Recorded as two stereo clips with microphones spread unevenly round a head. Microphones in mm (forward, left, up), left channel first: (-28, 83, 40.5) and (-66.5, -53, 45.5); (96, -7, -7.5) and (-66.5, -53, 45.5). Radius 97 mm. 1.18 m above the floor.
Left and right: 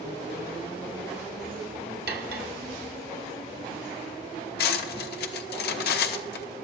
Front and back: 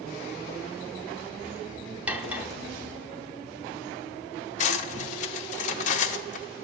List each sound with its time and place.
2.1 s cutlery clinking: 95° right, 0.8 m
4.6 s cutlery clinking: 75° left, 0.9 m